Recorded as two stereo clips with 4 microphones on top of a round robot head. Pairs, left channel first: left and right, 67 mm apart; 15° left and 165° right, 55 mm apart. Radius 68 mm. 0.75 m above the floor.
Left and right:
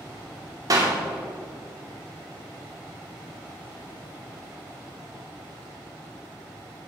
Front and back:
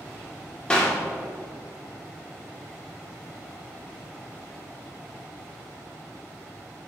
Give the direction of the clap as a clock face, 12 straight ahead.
2 o'clock.